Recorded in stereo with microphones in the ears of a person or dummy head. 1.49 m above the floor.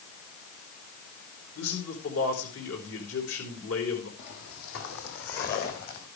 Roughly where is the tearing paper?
I don't hear tearing paper.